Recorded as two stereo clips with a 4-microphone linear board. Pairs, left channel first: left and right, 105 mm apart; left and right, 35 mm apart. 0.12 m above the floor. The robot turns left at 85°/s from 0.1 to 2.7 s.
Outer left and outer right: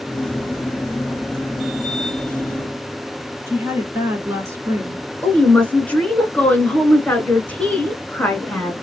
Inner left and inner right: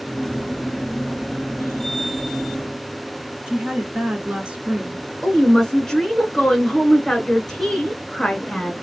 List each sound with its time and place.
3.5 s a woman speaking: 25° right (ahead or behind), 1.3 m
5.2 s a woman speaking: 15° left (ahead or behind), 1.1 m